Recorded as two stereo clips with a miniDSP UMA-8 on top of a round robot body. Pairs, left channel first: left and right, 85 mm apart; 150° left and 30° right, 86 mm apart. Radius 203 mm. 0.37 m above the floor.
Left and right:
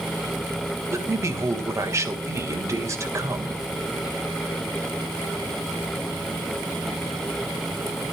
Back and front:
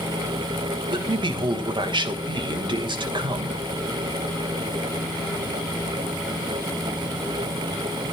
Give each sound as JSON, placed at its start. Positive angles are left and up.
{"t": 0.9, "sound": "a man speaking", "azimuth_deg": -40, "distance_m": 3.0}